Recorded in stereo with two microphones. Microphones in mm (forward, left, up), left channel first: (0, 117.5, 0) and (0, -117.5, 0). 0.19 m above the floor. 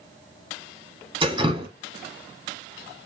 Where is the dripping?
20° right (ahead or behind), 1.3 m.